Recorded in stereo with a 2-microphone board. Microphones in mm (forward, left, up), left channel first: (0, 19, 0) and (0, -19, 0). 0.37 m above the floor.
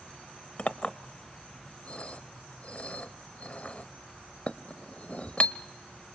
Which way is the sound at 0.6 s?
35° left (ahead or behind).